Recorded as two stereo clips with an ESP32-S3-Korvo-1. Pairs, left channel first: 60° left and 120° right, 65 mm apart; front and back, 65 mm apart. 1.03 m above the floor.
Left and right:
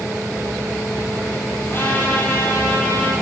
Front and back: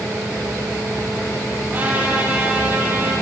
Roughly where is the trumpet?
Behind left.